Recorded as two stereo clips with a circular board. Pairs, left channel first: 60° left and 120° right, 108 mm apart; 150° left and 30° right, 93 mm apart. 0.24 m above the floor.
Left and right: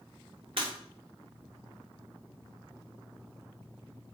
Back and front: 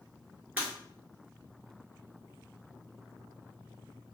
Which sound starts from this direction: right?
Breaking glass, at 0.6 s.